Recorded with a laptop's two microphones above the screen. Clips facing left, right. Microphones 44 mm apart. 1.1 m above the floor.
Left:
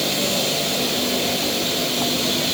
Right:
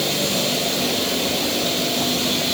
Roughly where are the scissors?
No scissors in this recording.